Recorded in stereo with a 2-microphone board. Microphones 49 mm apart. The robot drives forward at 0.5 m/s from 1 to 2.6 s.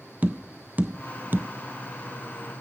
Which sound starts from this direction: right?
Tapping, at 0.2 s.